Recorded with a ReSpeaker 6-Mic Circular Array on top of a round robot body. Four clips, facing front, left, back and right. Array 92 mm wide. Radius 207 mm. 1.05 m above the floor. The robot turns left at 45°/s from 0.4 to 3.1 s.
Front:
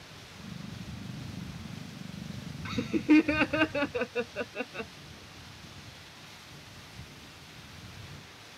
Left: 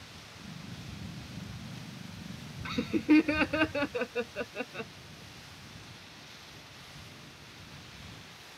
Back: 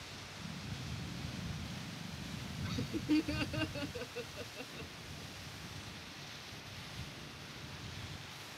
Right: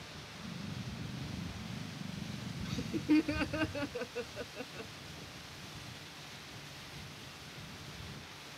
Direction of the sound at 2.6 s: 60° left.